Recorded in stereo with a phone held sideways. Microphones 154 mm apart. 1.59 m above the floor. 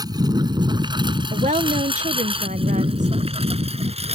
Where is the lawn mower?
25° right (ahead or behind); by 4.2 s 40° right (ahead or behind).